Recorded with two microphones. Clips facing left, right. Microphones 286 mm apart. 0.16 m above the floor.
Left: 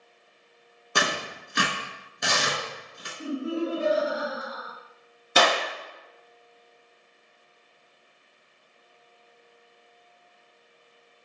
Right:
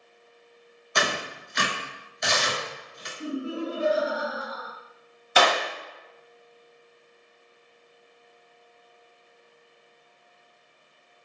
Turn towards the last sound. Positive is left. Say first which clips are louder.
# even
turn(degrees=45)  # may be behind; listen again after turning